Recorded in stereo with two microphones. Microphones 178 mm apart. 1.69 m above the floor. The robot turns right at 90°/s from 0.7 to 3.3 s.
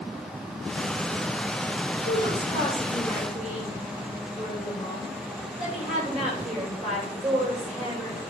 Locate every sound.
2.0 s a woman speaking: 105° left, 7.5 m; by 8.2 s 140° right, 7.5 m